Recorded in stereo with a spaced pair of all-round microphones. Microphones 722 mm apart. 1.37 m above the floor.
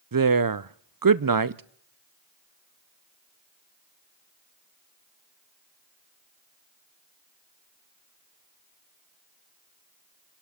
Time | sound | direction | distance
0.1 | a woman speaking | 30° right (ahead or behind) | 0.5 m